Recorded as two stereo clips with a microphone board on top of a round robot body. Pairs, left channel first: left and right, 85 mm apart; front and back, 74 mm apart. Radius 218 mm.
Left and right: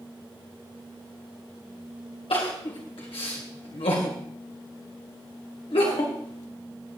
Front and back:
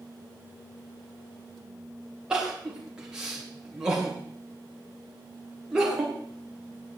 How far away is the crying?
About 2 m.